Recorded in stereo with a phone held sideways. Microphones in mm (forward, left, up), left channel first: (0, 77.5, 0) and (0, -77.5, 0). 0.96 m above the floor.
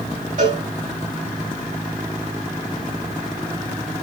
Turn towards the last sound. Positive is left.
turn(degrees=-55)  # may be behind; listen again after turning